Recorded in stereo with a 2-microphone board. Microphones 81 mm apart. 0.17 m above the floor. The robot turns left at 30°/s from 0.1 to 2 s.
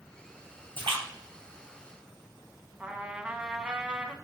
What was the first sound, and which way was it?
A splash, 85° right.